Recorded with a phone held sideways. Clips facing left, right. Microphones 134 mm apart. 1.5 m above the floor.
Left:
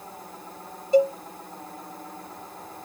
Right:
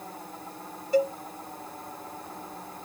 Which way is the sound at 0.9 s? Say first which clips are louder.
Left 5 dB; 25° left (ahead or behind).